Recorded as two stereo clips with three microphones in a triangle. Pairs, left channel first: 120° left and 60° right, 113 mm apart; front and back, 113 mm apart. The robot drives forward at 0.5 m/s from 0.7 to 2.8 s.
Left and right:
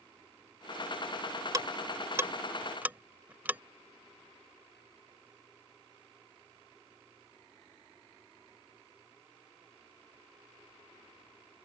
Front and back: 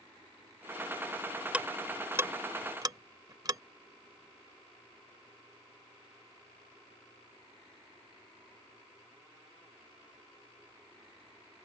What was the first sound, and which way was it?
Ticking, 105° right.